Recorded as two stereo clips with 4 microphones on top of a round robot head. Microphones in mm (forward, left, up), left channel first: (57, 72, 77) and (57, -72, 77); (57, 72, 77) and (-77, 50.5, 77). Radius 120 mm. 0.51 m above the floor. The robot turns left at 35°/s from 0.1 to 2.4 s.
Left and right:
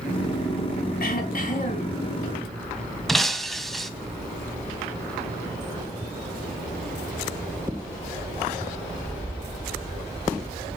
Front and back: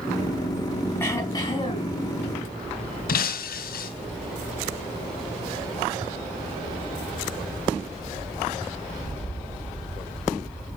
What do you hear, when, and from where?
1.0 s throat clearing: 85° left, 5 m; by 2.0 s 50° left, 5 m
3.1 s breaking glass: straight ahead, 1.7 m